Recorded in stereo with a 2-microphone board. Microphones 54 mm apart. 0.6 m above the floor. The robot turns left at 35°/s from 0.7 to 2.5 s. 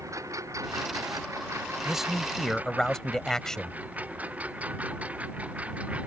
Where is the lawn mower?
85° right; by 6.1 s 25° right (ahead or behind).